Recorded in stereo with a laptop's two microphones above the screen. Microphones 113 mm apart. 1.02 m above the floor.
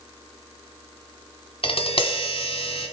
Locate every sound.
1.6 s tapping: 55° left (ahead or behind), 1.4 m